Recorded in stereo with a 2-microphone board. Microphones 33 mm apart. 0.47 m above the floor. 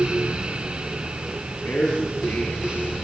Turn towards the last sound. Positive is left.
turn(degrees=70)  # may be behind; listen again after turning